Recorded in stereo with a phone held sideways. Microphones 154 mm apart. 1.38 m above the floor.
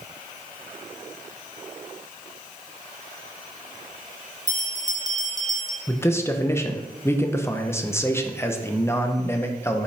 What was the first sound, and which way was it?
A bell, 25° right (ahead or behind).